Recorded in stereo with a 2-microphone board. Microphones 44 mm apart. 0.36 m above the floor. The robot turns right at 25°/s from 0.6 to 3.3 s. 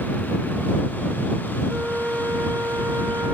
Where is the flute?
145° right; by 3.4 s 105° right.